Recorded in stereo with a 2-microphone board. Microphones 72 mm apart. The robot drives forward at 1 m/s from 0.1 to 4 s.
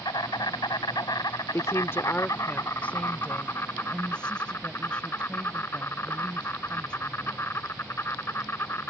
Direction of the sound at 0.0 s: 80° left.